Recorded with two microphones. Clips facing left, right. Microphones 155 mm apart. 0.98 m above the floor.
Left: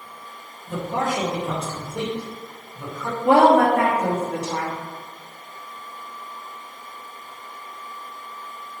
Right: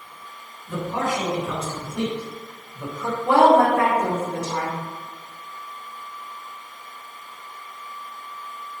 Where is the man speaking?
45° left (ahead or behind), 1.5 m; by 3.1 s 20° right (ahead or behind), 1.1 m.